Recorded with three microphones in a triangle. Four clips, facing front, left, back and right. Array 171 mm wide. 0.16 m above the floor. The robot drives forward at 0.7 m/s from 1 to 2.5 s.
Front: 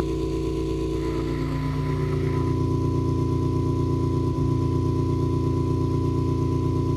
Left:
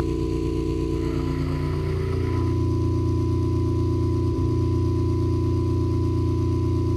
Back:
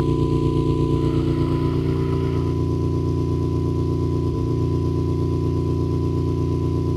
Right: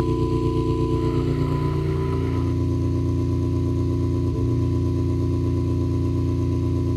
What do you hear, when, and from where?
0.0 s an engine running: 150° right, 1.8 m; by 7.0 s 160° right, 2.5 m